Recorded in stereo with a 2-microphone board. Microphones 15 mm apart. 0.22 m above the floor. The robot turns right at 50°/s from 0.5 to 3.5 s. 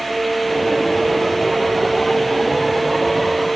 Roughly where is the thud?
I don't hear a thud.